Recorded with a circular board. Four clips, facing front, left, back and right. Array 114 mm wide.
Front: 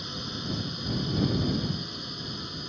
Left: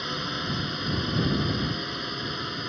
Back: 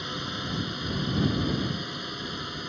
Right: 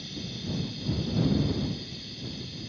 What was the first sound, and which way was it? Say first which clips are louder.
A drone: left 7 dB, back 3 dB; 110° left.